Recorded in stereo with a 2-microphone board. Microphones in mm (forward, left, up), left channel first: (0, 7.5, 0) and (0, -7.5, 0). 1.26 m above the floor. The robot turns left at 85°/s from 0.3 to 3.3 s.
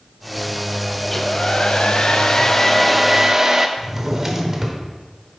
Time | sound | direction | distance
1.0 | a hair dryer | 170° left | 0.6 m
3.8 | a drawer | 30° right (ahead or behind) | 1.1 m